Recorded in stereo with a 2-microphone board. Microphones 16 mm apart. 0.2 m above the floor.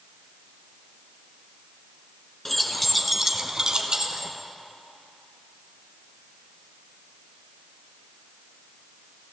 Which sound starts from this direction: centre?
Keys jangling, at 2.5 s.